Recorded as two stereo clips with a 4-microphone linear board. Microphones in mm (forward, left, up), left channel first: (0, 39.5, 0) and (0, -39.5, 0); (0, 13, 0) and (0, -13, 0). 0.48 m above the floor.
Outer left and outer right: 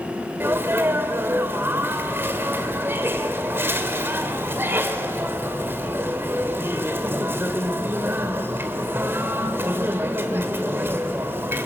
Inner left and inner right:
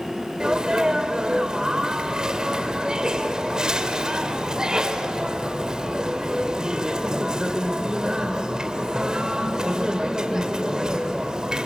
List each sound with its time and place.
0.4 s a sneeze: 30° right (ahead or behind), 1.8 m